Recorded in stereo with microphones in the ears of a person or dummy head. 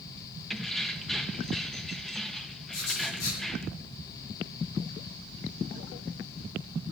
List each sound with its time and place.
0.5 s keys jangling: centre (ahead or behind), 0.8 m
2.7 s writing: 85° left, 7 m